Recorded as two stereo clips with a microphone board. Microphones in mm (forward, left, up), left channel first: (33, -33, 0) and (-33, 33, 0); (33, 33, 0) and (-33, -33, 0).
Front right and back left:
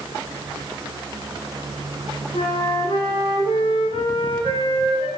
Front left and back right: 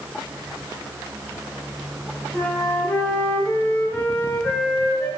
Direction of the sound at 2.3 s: 35° right.